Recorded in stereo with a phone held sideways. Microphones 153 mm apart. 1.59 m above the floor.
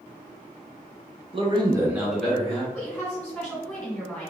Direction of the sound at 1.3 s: 35° right (ahead or behind).